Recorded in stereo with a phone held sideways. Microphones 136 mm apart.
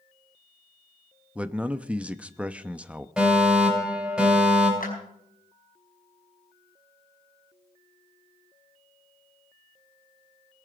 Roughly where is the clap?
Left.